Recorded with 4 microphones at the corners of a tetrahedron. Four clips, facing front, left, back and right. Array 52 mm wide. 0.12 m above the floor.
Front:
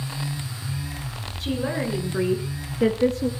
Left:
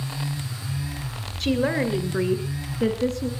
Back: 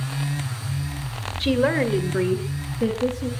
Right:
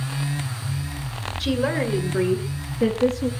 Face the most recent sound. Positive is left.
turn(degrees=0)